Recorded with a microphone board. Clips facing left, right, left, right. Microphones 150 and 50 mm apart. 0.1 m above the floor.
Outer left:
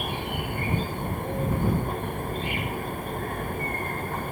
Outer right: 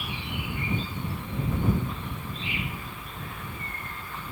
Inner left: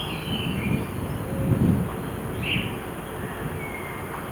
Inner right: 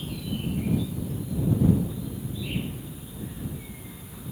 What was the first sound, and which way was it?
An insect, 50° left (ahead or behind).